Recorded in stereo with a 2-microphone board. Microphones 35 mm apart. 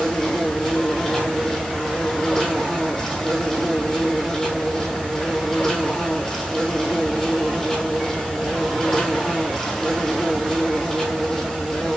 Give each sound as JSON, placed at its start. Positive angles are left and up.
{"t": 0.0, "sound": "an insect", "side_deg": 5, "distance_m": 3.5}